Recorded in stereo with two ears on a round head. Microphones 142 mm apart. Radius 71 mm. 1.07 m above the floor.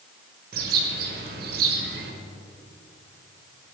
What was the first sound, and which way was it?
A bird, 65° right (ahead or behind).